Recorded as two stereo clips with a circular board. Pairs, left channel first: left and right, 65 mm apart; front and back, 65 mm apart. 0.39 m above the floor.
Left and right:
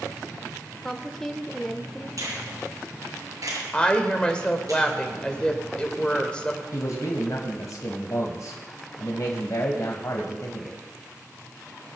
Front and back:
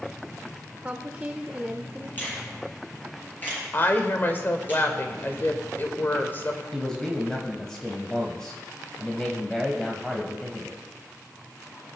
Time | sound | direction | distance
0.8 | a woman speaking | 160° left | 0.8 m
2.2 | a finger snap | 60° right | 6.5 m
3.7 | a woman speaking | 25° left | 1.6 m
6.7 | a man speaking | 80° left | 1.7 m